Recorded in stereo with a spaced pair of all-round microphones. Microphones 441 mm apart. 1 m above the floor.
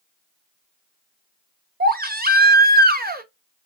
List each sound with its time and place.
1.8 s a baby crying: 20° right (ahead or behind), 0.7 m